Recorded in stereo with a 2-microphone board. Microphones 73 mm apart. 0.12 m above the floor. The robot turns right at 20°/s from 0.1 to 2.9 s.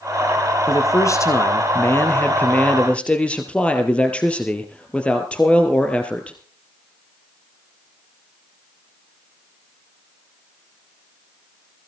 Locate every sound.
0.7 s a man speaking: 115° left, 2.5 m; by 6.4 s 160° left, 2.5 m